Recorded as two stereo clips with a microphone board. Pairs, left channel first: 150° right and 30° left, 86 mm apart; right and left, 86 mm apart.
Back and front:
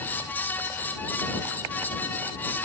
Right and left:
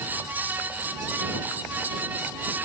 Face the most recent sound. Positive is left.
No sound to turn to.